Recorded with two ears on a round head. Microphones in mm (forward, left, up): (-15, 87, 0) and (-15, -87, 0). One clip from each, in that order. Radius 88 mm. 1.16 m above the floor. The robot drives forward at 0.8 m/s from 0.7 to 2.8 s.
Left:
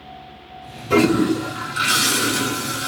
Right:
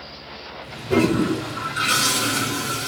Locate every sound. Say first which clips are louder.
0.9 s a toilet flushing: left 3 dB; 60° left (ahead or behind), 1.0 m; by 2.9 s 25° left (ahead or behind), 2 m